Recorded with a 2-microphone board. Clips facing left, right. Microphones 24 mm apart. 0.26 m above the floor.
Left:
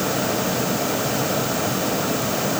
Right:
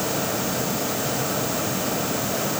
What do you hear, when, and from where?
Only background noise.